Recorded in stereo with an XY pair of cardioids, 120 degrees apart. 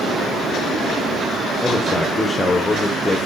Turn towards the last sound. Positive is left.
turn(degrees=10)